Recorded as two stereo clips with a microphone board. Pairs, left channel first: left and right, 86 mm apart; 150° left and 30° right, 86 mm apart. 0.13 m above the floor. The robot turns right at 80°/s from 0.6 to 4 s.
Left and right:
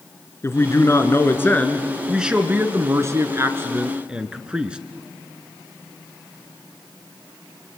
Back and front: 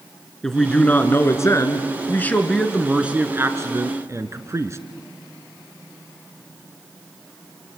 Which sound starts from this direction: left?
A man speaking, at 0.4 s.